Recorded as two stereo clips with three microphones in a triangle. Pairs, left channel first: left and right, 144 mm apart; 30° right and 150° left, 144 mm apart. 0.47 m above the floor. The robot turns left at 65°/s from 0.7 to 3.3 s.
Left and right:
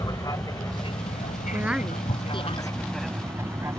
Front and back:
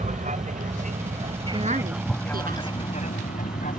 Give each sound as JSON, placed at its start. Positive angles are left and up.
{"t": 0.0, "sound": "an aircraft", "azimuth_deg": 150}
{"t": 1.5, "sound": "a woman speaking", "azimuth_deg": -160}